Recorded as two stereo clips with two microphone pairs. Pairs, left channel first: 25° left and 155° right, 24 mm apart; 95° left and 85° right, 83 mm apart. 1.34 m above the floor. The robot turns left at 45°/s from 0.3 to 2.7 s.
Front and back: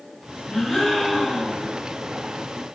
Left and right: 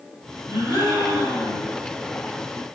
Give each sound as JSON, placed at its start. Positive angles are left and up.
{"t": 0.5, "sound": "a gasp", "azimuth_deg": -40, "distance_m": 1.3}